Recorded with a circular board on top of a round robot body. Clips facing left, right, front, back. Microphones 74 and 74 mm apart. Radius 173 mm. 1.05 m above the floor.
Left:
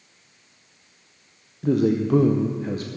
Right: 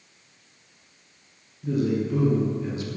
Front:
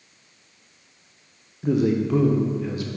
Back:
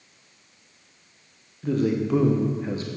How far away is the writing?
I don't hear writing.